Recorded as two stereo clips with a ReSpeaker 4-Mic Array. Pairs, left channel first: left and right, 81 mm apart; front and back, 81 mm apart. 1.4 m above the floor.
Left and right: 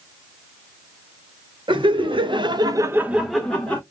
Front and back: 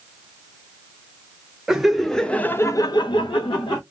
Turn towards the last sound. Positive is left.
turn(degrees=20)